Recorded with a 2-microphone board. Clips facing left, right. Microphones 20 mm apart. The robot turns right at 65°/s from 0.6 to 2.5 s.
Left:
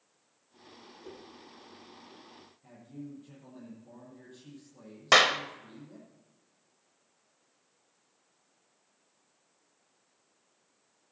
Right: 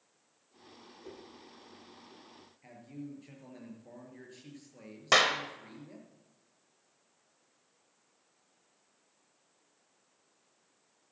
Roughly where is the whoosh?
Centre.